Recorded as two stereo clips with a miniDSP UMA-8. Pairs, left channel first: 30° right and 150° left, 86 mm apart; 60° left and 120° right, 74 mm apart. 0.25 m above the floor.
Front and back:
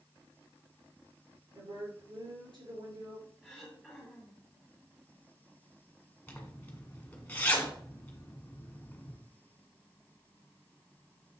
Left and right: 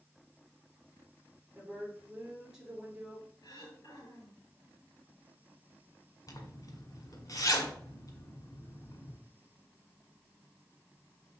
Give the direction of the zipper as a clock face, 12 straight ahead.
11 o'clock.